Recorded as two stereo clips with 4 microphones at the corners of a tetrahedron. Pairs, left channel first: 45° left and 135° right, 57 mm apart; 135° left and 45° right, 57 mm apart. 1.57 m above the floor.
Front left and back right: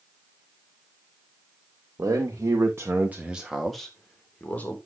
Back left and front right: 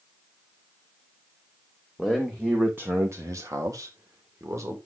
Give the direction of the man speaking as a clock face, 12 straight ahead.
4 o'clock.